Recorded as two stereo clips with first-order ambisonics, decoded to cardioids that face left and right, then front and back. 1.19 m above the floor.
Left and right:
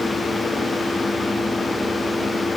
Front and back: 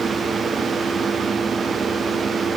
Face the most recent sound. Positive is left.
No sound to turn to.